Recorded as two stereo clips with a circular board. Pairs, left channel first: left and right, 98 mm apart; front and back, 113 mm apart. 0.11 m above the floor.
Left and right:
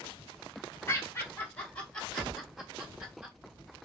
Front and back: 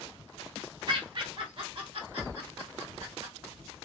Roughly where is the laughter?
Behind left.